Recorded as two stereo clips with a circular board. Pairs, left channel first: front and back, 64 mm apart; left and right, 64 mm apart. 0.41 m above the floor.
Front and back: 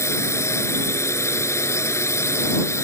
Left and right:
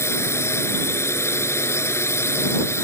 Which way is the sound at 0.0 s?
45° left.